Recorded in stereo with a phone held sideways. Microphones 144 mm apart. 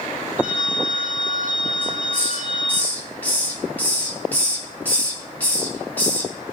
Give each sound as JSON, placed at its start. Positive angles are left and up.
{"t": 0.4, "sound": "a phone ringing", "side_deg": -65, "distance_m": 3.5}
{"t": 1.8, "sound": "a hiss", "side_deg": 10, "distance_m": 2.0}